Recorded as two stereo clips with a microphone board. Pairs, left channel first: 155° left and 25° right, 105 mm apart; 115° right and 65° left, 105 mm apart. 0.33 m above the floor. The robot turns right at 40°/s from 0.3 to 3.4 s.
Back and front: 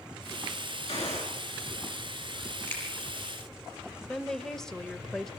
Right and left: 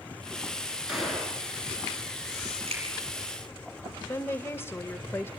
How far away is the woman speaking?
About 0.8 m.